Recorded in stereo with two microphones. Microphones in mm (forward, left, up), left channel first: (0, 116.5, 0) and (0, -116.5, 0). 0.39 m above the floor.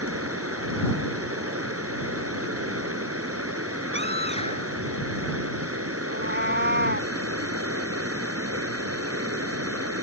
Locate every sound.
0.0 s running water: 80° right
3.9 s a scream: 25° left (ahead or behind)
6.1 s a cat meowing: 50° right (ahead or behind)